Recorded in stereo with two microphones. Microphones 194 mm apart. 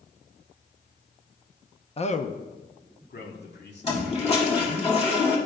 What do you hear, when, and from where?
2.0 s a man speaking: 30° left (ahead or behind), 0.5 m; by 4.8 s 65° left (ahead or behind), 2.5 m
3.8 s a toilet flushing: 30° left (ahead or behind), 1.8 m